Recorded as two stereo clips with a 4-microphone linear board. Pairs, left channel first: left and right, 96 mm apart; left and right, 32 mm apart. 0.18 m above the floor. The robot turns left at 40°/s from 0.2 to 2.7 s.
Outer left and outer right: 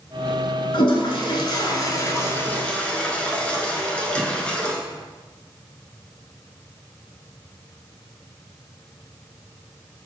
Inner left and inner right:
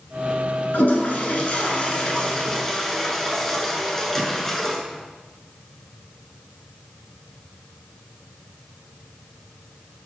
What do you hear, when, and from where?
0.7 s a toilet flushing: 65° left (ahead or behind), 0.7 m; by 4.8 s 15° left (ahead or behind), 0.7 m